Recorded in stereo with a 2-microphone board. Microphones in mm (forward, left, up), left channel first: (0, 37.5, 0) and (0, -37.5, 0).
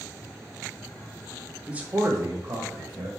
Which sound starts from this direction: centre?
A man speaking, at 1.7 s.